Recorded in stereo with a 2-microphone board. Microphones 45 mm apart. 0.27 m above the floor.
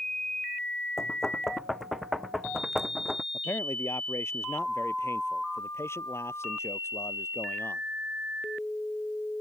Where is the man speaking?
80° left.